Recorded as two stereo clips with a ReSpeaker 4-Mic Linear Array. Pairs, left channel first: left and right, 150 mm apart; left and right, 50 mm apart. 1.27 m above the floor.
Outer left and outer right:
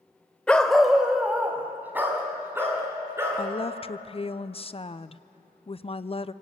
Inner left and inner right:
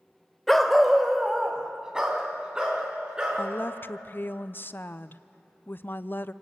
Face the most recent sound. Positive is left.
turn(degrees=35)  # may be behind; listen again after turning